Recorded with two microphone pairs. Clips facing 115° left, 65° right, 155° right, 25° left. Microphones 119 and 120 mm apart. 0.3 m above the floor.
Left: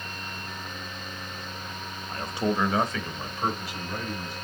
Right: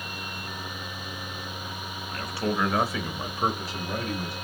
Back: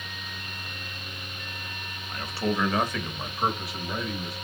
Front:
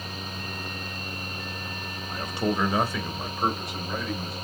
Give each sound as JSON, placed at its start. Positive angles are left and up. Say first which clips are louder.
{"t": 2.1, "sound": "a man speaking", "louder": "left 2 dB, front 1 dB", "azimuth_deg": 80, "distance_m": 1.2}